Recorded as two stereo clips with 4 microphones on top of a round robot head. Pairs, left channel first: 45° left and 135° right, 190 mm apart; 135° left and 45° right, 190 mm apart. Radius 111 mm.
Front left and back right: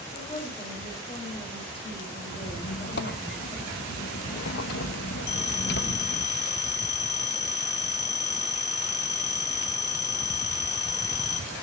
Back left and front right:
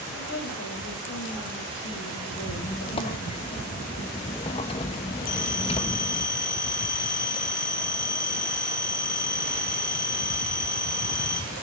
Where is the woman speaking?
110° left, 6 m.